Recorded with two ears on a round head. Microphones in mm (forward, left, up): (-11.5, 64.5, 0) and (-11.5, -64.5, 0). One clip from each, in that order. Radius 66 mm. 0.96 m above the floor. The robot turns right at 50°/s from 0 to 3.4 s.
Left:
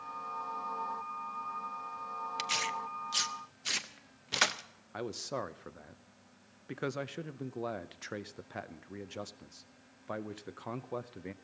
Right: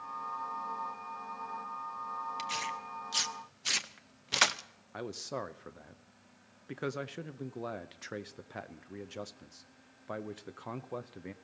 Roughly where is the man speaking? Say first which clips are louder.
Left 1 dB; centre.